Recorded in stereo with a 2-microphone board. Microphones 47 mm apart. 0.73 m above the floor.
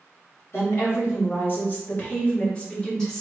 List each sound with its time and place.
0.5 s a woman speaking: 60° left (ahead or behind), 1.9 m; by 3.2 s 10° left (ahead or behind), 1.4 m